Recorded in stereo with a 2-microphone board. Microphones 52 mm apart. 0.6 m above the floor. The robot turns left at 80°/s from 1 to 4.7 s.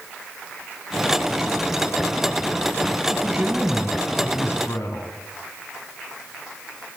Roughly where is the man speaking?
Behind right.